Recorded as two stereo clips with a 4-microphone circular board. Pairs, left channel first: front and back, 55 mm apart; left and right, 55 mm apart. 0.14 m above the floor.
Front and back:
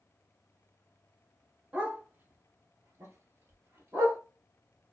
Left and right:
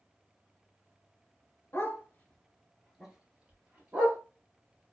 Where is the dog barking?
125° left, 0.8 m; by 4.2 s 145° right, 1.3 m.